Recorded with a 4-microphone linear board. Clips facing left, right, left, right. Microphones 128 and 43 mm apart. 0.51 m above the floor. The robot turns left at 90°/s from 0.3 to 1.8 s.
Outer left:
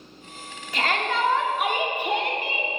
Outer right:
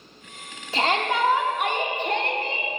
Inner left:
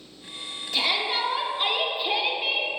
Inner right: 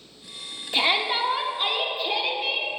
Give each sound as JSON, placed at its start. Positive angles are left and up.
{"t": 0.7, "sound": "a shout", "side_deg": -25, "distance_m": 0.9}